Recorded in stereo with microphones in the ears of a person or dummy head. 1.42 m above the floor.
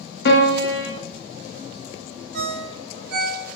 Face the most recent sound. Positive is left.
turn(degrees=-60)  # may be behind; listen again after turning